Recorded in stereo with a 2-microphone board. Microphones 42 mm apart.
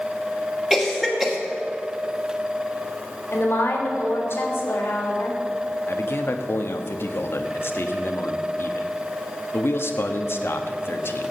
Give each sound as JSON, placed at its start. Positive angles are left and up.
{"t": 0.7, "sound": "a cough", "side_deg": -10, "distance_m": 1.9}
{"t": 3.3, "sound": "a woman speaking", "side_deg": 55, "distance_m": 3.5}
{"t": 5.9, "sound": "a man speaking", "side_deg": 60, "distance_m": 1.2}